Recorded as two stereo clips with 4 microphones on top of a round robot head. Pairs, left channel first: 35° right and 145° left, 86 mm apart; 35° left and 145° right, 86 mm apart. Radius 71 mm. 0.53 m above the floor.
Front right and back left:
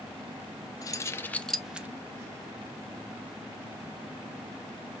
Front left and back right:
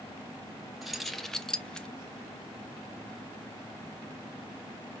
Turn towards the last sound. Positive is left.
turn(degrees=100)